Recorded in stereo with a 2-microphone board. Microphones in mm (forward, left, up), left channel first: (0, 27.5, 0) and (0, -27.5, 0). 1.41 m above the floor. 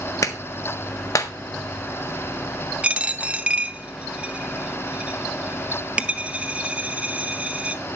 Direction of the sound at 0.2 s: 85° left.